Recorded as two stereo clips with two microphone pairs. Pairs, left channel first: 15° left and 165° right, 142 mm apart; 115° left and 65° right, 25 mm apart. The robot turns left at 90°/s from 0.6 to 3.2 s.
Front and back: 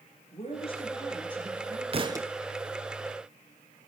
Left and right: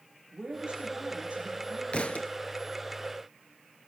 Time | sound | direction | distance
0.3 | a woman speaking | 25° right | 3.5 m
1.9 | a thud | 155° left | 0.6 m